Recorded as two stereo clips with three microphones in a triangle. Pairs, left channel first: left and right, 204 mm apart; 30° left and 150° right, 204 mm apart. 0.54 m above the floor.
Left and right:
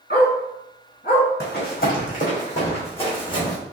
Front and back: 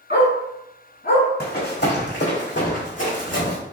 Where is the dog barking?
55° left, 2.0 m.